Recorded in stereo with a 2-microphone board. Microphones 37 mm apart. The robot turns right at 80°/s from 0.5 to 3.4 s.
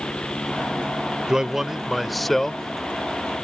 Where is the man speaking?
15° right (ahead or behind); by 3.4 s 20° left (ahead or behind).